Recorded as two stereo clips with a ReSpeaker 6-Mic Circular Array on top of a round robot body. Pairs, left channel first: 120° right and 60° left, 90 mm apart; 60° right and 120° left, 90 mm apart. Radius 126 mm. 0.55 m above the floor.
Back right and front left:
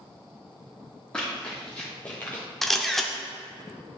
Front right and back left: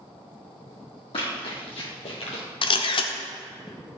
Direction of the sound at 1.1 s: 35° right.